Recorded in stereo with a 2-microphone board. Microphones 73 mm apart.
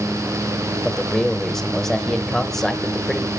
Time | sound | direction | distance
0.8 | a man speaking | 5° left (ahead or behind) | 1.2 m